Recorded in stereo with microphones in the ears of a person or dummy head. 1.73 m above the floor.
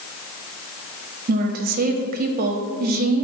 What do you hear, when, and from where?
1.3 s a woman speaking: 45° right (ahead or behind), 0.6 m